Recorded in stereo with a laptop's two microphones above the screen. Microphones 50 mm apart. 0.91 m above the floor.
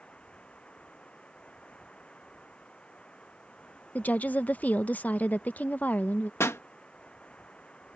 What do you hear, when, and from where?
0.0 s running water: 20° left (ahead or behind)
4.0 s a woman speaking: 30° left (ahead or behind)
6.4 s a pop: 60° left (ahead or behind)